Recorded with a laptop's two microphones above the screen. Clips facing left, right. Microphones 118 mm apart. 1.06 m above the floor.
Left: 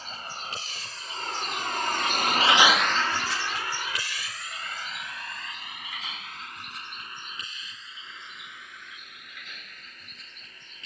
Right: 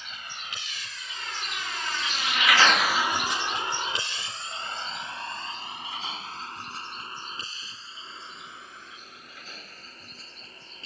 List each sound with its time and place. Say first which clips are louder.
0.0 s a vehicle: left 4 dB; 40° left (ahead or behind); by 10.9 s 35° right (ahead or behind)